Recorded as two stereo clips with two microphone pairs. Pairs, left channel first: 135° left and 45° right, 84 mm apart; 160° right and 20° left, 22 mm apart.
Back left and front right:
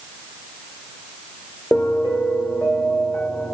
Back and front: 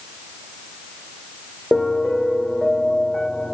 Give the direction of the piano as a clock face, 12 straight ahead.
6 o'clock.